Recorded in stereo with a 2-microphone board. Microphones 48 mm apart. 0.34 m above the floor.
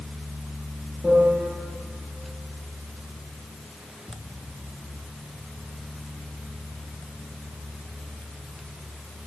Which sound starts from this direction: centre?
A piano, at 1.0 s.